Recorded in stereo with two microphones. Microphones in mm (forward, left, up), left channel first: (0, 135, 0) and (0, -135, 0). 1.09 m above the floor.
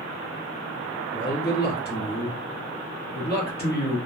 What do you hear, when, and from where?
1.1 s a man speaking: 35° left (ahead or behind), 1.0 m